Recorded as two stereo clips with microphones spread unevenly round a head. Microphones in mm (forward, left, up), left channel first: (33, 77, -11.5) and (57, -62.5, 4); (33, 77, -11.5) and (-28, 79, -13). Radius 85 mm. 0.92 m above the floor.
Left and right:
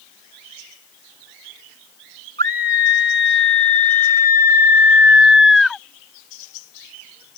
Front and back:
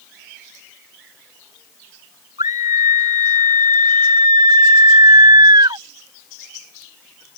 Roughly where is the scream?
Behind right.